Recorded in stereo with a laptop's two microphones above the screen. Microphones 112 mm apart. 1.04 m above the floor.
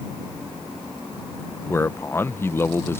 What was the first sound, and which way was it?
A man speaking, 20° left (ahead or behind).